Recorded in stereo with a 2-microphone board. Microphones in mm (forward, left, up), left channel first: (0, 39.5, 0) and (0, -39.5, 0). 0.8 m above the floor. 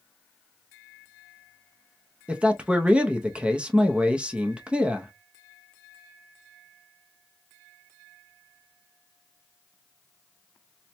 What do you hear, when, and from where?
2.3 s a man speaking: 15° right (ahead or behind), 0.6 m